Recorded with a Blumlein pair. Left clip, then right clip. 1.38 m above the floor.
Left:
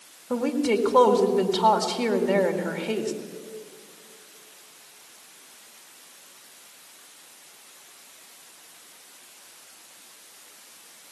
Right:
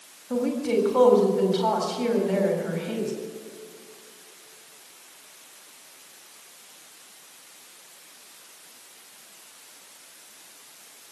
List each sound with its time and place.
0.3 s a woman speaking: 20° left, 2.0 m